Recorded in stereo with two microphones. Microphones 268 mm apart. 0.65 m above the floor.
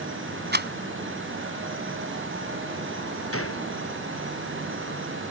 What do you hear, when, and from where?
0.5 s a rattle: 40° right (ahead or behind)
3.3 s a gunshot: 55° left (ahead or behind)